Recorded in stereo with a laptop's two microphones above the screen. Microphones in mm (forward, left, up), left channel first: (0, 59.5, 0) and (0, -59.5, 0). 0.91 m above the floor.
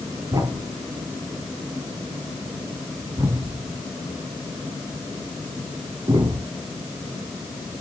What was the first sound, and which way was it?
A thud, 35° right (ahead or behind).